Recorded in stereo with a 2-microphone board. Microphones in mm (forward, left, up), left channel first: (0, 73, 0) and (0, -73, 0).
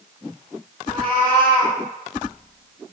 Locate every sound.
0.9 s a cat meowing: 70° left (ahead or behind), 2.5 m